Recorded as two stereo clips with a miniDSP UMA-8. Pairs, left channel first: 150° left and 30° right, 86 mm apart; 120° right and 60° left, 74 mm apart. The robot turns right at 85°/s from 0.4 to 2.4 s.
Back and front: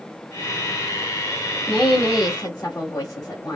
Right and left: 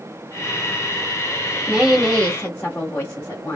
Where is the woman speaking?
115° left, 1.3 m; by 3.6 s straight behind, 1.3 m.